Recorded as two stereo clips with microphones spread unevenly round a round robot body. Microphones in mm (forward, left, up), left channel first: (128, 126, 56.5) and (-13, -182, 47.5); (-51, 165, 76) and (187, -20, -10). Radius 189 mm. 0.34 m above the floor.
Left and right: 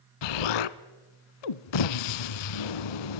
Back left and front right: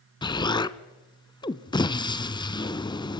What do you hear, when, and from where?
0.2 s an explosion: 65° left, 0.9 m